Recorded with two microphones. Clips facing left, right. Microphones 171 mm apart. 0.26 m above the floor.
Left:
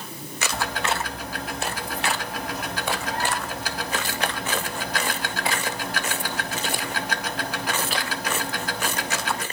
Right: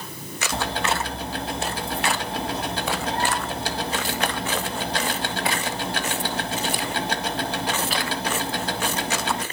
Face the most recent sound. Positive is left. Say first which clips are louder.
# right 2 dB
turn(degrees=-30)  # may be behind; listen again after turning